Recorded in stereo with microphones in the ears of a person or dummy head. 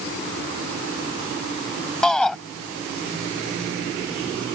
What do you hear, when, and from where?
2.0 s a shout: centre (ahead or behind)